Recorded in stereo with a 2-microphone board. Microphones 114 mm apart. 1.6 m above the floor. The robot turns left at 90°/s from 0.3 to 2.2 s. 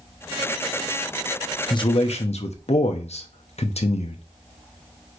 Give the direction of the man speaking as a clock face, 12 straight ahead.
7 o'clock.